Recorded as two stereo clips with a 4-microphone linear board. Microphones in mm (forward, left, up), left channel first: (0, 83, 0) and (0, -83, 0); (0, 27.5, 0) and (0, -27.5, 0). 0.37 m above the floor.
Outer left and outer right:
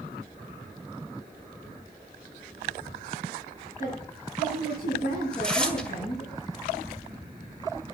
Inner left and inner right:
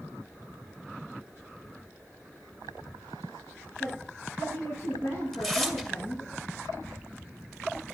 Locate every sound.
3.8 s a woman speaking: 60° left (ahead or behind), 8 m
5.3 s tearing paper: 5° left (ahead or behind), 1.9 m